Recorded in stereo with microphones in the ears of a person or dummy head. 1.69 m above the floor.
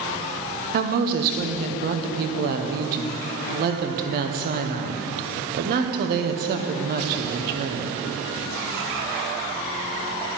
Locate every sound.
0.7 s a woman speaking: 50° right (ahead or behind), 0.9 m